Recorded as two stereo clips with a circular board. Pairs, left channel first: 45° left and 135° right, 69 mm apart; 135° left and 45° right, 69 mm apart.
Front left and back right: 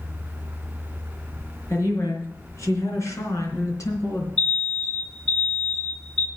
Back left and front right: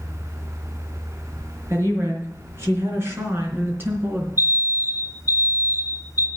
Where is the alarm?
95° left, 3 m.